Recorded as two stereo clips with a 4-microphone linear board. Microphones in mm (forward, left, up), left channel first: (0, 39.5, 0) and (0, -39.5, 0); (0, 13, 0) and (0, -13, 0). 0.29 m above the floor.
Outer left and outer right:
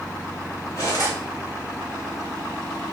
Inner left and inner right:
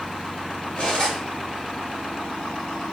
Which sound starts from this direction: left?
Cutlery clinking, at 0.8 s.